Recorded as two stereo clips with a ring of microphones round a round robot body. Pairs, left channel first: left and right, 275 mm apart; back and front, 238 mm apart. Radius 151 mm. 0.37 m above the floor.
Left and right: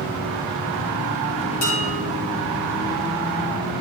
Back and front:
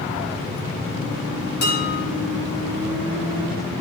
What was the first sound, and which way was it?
Dishes clattering, 135° left.